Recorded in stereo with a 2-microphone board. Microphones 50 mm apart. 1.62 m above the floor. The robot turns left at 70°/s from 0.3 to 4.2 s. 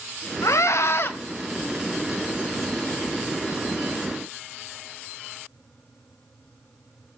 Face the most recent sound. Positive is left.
turn(degrees=-165)